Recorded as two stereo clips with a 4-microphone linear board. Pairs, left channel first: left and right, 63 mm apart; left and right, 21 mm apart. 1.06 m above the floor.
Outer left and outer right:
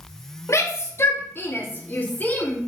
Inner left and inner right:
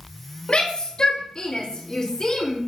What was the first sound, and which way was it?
A shout, 50° left (ahead or behind).